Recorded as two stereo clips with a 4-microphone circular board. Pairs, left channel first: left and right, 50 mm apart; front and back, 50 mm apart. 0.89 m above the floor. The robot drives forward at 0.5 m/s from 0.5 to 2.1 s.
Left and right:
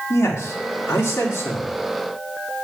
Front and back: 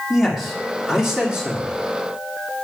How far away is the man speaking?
About 2 m.